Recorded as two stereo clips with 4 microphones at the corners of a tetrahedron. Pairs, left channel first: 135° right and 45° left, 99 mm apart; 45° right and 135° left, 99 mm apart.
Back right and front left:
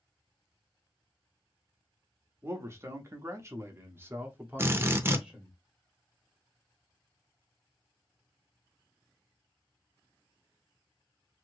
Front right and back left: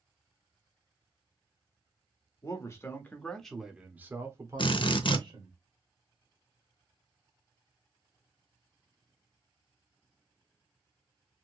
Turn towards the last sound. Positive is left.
turn(degrees=-20)